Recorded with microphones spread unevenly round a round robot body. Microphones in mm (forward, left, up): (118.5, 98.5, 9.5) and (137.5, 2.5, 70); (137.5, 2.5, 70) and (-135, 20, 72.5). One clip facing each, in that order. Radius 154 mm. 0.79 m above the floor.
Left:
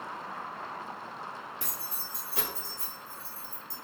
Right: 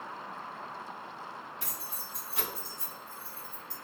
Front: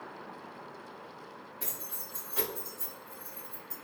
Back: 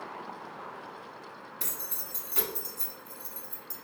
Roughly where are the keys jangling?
Behind left.